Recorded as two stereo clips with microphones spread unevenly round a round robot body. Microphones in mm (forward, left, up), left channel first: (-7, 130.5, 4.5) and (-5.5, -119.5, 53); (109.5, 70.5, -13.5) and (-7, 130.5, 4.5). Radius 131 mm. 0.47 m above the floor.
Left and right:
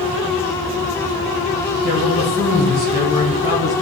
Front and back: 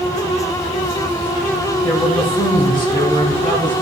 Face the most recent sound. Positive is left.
turn(degrees=25)